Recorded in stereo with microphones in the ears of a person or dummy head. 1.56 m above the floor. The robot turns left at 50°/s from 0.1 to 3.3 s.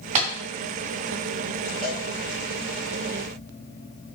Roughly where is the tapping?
Right.